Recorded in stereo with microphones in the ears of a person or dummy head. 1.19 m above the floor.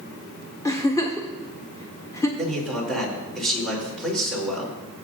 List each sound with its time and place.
0.7 s a giggle: 15° left (ahead or behind), 1.0 m
2.4 s a man speaking: centre (ahead or behind), 4 m